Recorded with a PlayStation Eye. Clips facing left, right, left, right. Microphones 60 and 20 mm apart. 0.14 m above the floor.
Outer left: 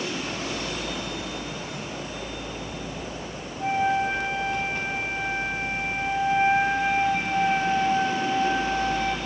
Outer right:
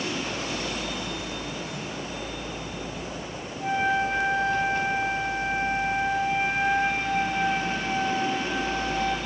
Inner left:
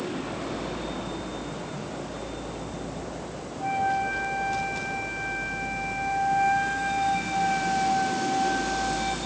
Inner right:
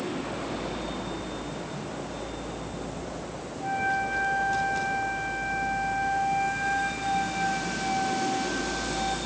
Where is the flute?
15° left (ahead or behind), 6.5 m.